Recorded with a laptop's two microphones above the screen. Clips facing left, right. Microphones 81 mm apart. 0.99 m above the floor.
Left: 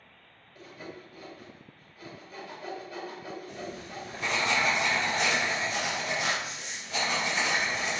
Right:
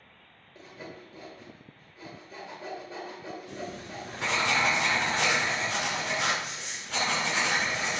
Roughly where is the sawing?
Right.